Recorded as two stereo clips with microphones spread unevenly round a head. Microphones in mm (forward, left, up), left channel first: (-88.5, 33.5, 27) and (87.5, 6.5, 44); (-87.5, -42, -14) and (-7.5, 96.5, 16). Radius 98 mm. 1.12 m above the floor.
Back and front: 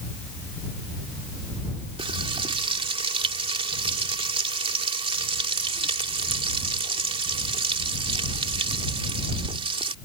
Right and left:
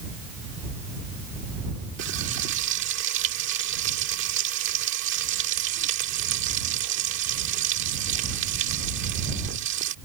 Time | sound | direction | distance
2.0 | frying | 55° left | ?